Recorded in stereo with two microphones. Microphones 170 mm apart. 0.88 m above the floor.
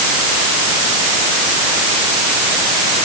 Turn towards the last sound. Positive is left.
No sound to turn to.